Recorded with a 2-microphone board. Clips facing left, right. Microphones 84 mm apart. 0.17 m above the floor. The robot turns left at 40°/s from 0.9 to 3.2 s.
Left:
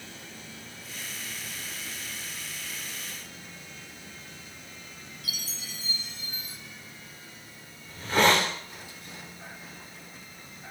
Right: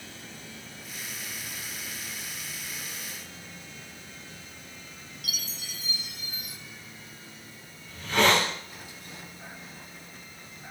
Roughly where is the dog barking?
No dog barking in this recording.